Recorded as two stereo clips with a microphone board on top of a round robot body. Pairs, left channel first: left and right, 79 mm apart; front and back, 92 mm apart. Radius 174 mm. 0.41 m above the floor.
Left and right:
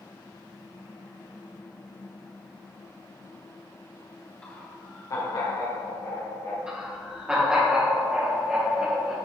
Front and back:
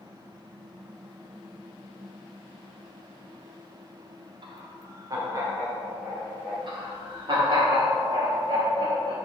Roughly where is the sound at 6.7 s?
Behind.